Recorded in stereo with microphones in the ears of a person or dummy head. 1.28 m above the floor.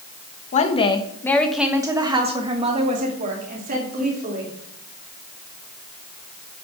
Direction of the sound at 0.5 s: 45° left (ahead or behind).